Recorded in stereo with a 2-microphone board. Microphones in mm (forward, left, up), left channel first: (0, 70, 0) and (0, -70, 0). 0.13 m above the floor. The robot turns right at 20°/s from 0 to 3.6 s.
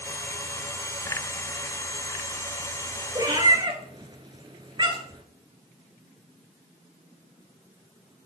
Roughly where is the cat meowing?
Right.